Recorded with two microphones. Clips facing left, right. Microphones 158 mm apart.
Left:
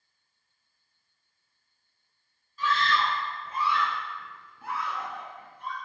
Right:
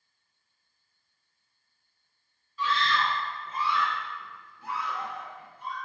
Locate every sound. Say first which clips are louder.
2.6 s a scream: left 1 dB; 40° left (ahead or behind), 1.1 m; by 5.8 s 55° left (ahead or behind), 2.5 m